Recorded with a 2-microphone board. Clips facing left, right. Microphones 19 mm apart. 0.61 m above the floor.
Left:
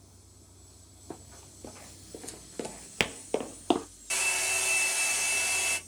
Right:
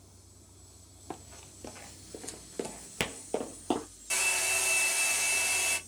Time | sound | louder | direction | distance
1.1 | running footsteps | right 1 dB | 55° right (ahead or behind) | 1.0 m
4.1 | a hair dryer | even | 10° left (ahead or behind) | 1.4 m